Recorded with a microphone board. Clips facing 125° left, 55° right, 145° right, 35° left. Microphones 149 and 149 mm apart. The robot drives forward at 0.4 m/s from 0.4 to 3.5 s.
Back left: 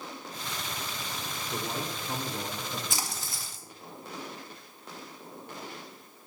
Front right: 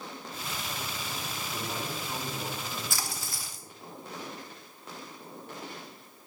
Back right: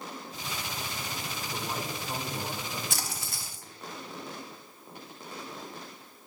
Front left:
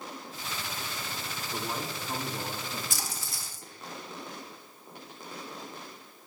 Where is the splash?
165° right, 0.7 m; by 3.6 s 170° right, 0.9 m.